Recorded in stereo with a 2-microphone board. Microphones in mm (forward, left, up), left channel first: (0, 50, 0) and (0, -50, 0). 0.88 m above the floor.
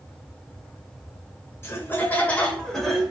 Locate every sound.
1.6 s laughter: 25° left (ahead or behind), 1.3 m; by 3.1 s 5° right (ahead or behind), 0.9 m